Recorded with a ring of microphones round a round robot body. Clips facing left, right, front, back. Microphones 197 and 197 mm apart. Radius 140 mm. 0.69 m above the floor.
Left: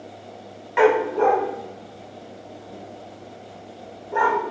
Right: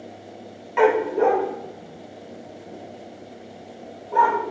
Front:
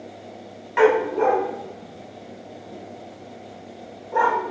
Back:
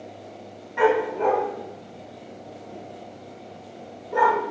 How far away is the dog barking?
About 0.6 m.